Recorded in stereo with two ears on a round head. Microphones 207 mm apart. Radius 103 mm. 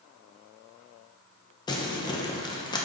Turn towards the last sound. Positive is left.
turn(degrees=20)  # may be behind; listen again after turning